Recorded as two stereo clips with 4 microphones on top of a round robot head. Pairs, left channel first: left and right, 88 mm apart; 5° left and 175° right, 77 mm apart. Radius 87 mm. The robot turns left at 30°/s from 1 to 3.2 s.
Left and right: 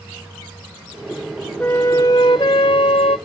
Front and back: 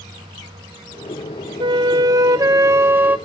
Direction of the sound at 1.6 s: 170° left.